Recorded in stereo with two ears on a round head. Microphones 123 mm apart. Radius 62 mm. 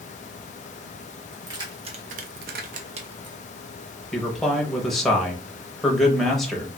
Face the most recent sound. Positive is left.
turn(degrees=0)  # may be behind; listen again after turning